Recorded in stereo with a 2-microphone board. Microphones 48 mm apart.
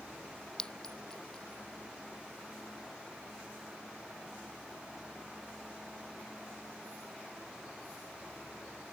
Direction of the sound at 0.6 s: 15° left (ahead or behind).